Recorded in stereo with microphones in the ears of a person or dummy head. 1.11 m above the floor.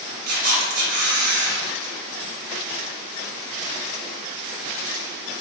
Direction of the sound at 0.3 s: 60° right (ahead or behind).